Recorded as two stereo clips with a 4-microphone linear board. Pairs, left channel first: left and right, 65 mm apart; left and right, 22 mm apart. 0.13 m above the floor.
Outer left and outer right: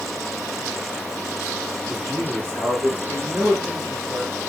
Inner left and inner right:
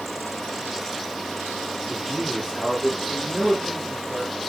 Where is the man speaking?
45° right (ahead or behind), 5.5 m.